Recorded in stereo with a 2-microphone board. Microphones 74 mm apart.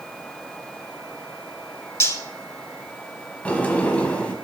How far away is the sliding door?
About 0.9 m.